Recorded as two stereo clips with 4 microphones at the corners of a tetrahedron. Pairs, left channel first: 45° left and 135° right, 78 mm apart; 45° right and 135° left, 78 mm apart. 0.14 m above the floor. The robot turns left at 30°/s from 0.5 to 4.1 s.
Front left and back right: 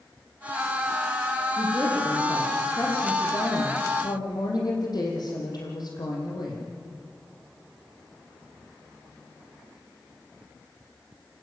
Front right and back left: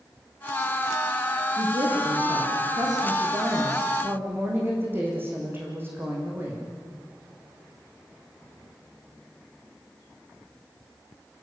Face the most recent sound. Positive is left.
turn(degrees=75)